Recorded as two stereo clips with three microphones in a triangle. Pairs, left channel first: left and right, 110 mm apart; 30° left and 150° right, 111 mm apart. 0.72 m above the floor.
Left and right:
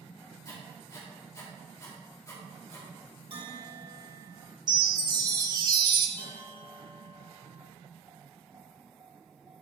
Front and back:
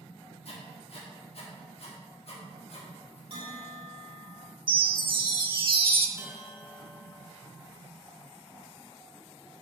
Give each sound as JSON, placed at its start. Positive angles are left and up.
{"t": 0.5, "sound": "writing", "azimuth_deg": 35, "distance_m": 1.3}
{"t": 3.3, "sound": "a bell", "azimuth_deg": -120, "distance_m": 1.6}
{"t": 4.7, "sound": "a chime", "azimuth_deg": -130, "distance_m": 0.6}
{"t": 6.2, "sound": "a bell", "azimuth_deg": -80, "distance_m": 1.7}